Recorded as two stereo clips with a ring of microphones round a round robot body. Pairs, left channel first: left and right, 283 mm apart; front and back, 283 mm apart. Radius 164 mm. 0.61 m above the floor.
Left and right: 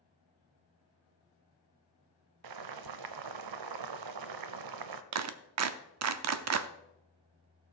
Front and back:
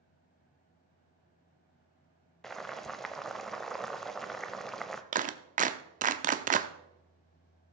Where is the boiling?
90° right, 0.7 m.